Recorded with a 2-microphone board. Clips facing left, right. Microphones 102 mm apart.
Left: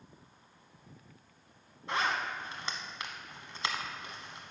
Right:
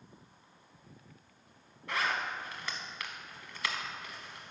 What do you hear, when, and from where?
1.9 s a zipper: 25° left (ahead or behind), 0.9 m